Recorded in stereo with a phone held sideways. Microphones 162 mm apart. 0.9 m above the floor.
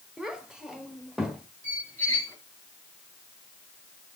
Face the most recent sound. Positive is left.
turn(degrees=10)  # may be behind; listen again after turning